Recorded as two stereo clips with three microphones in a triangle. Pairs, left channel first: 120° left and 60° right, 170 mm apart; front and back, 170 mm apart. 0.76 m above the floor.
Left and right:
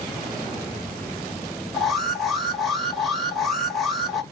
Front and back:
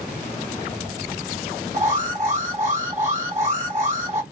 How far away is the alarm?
About 1.2 m.